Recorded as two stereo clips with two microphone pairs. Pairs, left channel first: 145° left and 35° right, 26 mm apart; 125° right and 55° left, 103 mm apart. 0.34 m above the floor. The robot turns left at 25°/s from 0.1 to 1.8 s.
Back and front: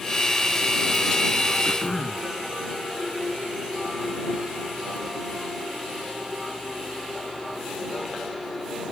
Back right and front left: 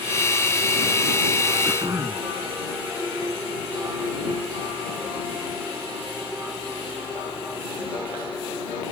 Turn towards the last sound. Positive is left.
turn(degrees=110)